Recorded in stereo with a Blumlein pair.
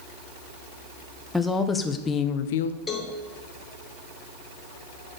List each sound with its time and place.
1.3 s a woman speaking: 5° left, 1.1 m; by 2.8 s 80° left, 0.5 m
2.9 s a cowbell: 15° left, 1.3 m